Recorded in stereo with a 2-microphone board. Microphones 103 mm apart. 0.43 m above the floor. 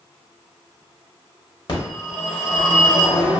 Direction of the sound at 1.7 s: 55° left (ahead or behind).